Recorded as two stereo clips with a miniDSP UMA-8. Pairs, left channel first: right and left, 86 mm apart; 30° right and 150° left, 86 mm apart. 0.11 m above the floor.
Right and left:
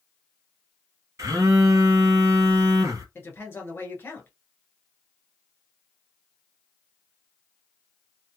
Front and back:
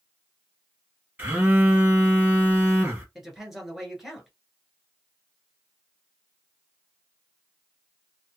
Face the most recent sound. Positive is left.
turn(degrees=-125)